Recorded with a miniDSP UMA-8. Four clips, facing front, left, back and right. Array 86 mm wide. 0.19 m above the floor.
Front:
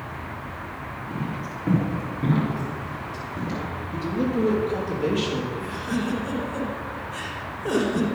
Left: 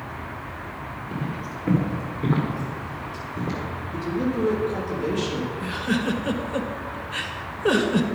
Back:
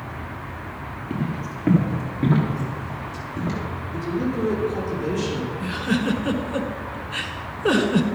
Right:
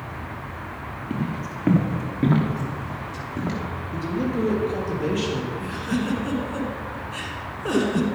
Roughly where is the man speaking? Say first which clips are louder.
Even, even; ahead right.